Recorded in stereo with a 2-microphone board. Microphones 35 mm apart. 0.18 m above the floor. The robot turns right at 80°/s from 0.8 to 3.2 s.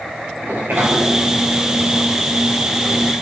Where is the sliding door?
85° right, 7.5 m; by 3.1 s 85° left, 7.5 m.